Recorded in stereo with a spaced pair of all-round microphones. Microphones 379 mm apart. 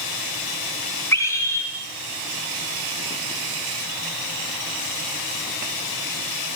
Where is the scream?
5° left (ahead or behind), 3.5 m.